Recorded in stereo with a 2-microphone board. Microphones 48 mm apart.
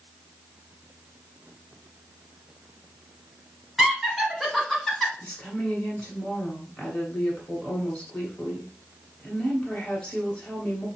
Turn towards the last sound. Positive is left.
turn(degrees=10)  # may be behind; listen again after turning